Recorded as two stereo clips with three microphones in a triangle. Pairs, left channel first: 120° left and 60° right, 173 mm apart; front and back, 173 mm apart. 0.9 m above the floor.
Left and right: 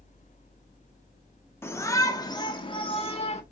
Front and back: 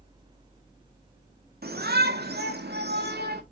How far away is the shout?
About 1.9 m.